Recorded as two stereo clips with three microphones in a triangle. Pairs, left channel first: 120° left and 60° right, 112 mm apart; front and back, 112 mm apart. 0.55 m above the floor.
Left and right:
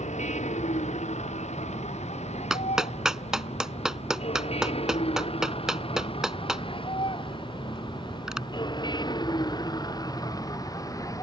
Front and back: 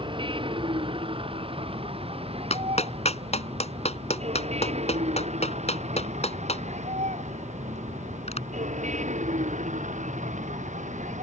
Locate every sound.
0.0 s a vehicle: 135° left; by 11.2 s straight behind
2.5 s a clap: 25° left